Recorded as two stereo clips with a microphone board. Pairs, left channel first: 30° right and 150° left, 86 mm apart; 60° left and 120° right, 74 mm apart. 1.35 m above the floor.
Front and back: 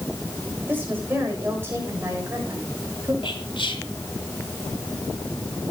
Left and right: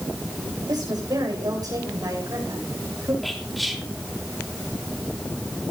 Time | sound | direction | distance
0.7 | a woman speaking | 145° right | 7.5 m
3.2 | whispering | 30° right | 3.5 m